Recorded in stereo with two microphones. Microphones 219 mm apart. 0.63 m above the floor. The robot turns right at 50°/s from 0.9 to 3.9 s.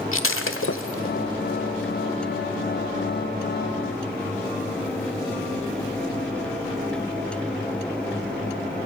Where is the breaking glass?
85° left, 1.3 m; by 1.2 s 75° left (ahead or behind), 1.3 m.